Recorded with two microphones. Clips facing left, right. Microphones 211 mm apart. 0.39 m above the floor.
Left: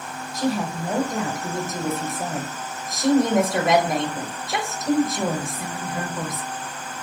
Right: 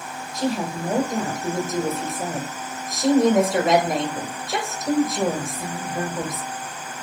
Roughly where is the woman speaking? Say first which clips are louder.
Even; right.